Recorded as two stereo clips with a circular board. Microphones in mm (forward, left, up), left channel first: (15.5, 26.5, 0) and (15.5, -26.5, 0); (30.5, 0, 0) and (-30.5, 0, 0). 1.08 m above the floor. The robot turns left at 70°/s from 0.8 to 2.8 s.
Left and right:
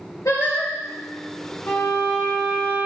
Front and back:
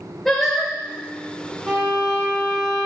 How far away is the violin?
About 2.5 m.